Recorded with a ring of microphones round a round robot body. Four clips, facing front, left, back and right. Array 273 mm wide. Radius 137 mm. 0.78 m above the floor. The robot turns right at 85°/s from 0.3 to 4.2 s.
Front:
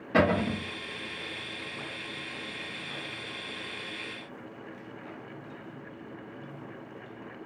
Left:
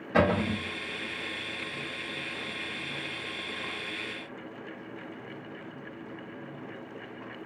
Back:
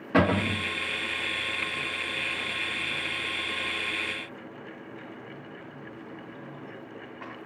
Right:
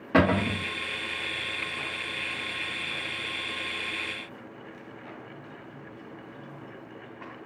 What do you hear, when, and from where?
0.1 s a cupboard door: 110° right, 0.9 m; by 0.6 s 80° right, 0.9 m